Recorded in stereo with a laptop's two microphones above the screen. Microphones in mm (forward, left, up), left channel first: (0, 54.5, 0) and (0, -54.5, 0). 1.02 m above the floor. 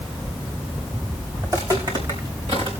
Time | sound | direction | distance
1.4 | footsteps | 35° right (ahead or behind) | 4.5 m